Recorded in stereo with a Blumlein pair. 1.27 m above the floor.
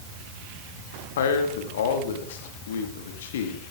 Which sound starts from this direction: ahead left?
A man speaking, at 1.2 s.